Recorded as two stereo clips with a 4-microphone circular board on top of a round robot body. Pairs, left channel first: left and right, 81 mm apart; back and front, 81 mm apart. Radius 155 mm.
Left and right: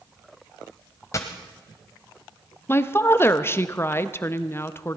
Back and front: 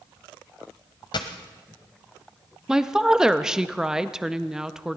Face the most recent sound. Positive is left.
turn(degrees=75)